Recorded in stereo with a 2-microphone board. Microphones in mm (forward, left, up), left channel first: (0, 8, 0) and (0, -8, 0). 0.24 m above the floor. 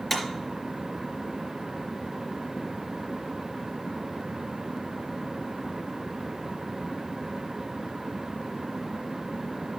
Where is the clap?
5° left (ahead or behind), 3.5 m.